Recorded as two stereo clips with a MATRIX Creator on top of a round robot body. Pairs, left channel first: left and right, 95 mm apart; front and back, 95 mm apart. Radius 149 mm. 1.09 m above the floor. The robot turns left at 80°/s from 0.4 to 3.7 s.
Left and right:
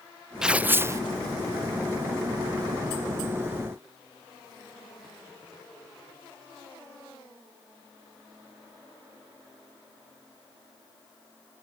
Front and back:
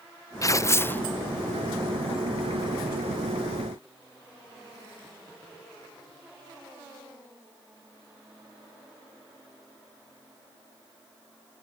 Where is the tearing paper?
10° right; by 1.0 s 60° right.